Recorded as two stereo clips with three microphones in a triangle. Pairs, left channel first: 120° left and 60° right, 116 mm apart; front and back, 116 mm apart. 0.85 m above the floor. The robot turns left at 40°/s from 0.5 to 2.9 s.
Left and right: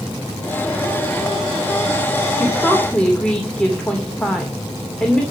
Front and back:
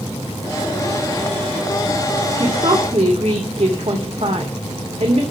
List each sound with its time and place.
2.4 s a woman speaking: 135° right, 2.5 m; by 5.2 s 160° right, 2.5 m